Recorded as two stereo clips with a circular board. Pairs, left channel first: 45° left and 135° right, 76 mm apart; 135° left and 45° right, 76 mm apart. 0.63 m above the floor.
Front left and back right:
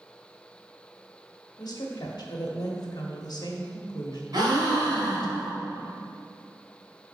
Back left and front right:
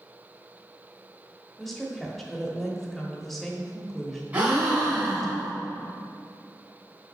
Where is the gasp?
115° right, 1.9 m.